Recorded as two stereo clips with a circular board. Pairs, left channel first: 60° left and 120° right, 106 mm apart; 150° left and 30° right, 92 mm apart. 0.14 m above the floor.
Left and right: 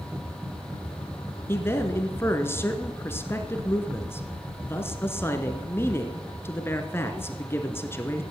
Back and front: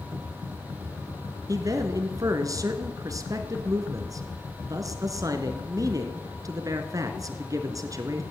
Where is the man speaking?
Straight ahead, 1.4 m.